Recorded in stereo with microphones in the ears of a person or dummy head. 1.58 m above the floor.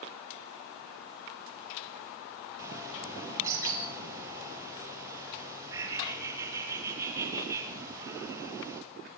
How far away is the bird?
About 6 m.